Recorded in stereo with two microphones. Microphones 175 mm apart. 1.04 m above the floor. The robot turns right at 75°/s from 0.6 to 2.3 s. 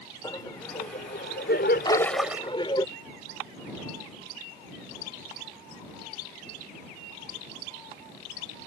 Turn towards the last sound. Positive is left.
turn(degrees=-170)